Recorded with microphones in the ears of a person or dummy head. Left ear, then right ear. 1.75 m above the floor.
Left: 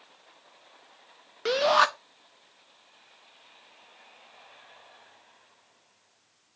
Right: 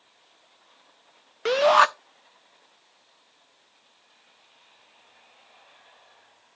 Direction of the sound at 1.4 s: 25° right (ahead or behind).